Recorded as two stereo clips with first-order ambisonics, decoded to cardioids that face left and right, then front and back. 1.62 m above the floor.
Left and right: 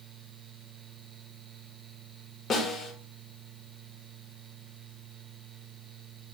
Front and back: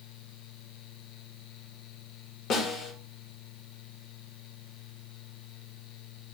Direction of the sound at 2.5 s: 35° left.